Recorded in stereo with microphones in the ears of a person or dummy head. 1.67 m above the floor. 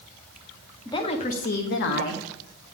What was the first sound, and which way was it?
A woman speaking, 20° left (ahead or behind).